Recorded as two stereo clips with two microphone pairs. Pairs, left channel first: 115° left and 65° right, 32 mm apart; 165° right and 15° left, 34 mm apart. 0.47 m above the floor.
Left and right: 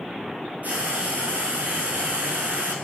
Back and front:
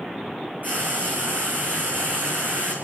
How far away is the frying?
About 6 m.